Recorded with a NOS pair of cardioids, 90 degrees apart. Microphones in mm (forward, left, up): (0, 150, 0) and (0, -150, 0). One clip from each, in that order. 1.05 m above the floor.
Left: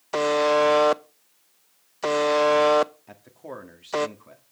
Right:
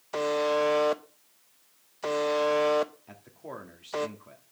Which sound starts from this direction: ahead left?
A buzzer, at 0.1 s.